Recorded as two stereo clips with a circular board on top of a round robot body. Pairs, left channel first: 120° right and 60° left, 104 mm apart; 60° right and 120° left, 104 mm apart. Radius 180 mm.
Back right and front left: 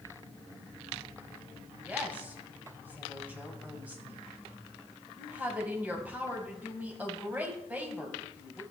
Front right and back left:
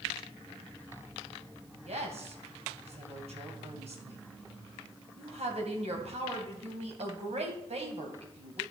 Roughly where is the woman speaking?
Behind left.